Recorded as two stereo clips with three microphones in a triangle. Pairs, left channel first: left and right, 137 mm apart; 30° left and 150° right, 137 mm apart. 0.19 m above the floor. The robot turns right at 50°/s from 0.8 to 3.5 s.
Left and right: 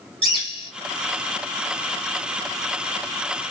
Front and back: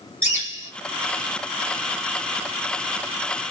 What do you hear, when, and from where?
0.2 s a bird: 140° left, 1.7 m